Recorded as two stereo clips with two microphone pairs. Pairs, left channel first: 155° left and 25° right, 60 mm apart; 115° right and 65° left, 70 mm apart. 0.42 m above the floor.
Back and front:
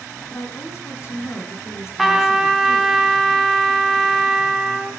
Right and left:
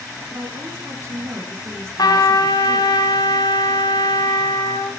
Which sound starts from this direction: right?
A trumpet, at 2.0 s.